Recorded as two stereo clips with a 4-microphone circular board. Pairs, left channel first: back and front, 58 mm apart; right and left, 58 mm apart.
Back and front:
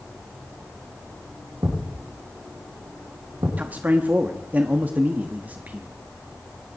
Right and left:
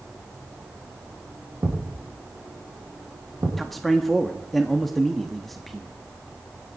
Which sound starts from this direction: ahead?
A man speaking, at 3.6 s.